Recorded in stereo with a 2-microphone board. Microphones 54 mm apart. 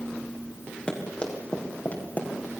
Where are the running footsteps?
15° left (ahead or behind), 4.5 m; by 2.3 s 35° left (ahead or behind), 4.5 m.